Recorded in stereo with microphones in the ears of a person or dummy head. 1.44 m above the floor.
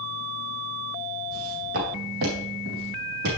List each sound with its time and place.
1.3 s footsteps: 50° right (ahead or behind), 4 m; by 3.4 s 60° right (ahead or behind), 5 m